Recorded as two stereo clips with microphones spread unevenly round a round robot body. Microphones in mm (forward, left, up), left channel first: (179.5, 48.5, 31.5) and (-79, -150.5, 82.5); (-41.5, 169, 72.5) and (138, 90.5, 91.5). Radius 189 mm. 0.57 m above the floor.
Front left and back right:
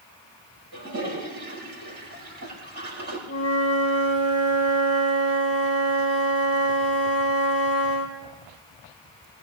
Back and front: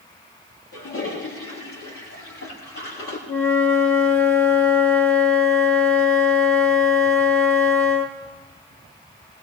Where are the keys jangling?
No keys jangling in this recording.